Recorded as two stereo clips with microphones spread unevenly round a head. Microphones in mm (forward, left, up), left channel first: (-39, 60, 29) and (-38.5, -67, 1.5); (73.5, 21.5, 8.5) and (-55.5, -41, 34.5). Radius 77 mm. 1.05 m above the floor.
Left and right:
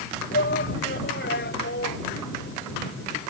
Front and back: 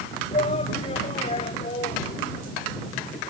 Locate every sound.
0.3 s a shout: 80° left